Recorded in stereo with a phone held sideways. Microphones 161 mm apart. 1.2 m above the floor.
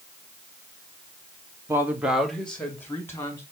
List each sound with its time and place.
1.7 s a woman speaking: 15° right (ahead or behind), 1.8 m; by 3.4 s 20° left (ahead or behind), 3.5 m